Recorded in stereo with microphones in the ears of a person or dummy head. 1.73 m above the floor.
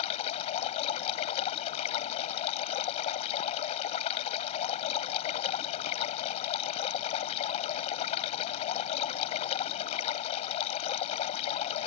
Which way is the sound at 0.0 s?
35° left (ahead or behind).